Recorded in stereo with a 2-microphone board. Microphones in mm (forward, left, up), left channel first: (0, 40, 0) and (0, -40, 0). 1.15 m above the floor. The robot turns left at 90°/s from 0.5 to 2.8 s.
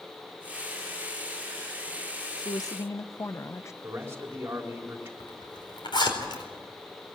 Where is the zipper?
75° left (ahead or behind), 4.5 m.